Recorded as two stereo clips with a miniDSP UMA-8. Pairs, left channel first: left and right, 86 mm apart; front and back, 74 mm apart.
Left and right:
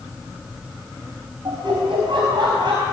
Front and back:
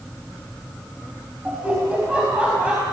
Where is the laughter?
105° right, 4.5 m.